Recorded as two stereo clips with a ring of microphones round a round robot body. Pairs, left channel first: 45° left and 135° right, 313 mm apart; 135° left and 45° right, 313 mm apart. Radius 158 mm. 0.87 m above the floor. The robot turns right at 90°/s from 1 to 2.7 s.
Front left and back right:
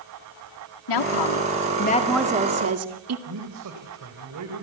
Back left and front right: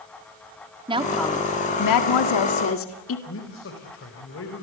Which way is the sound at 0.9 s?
30° left.